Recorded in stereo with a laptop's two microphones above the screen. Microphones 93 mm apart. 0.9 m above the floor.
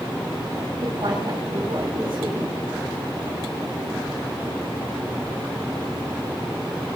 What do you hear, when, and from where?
0.8 s a woman speaking: 55° right (ahead or behind), 8.5 m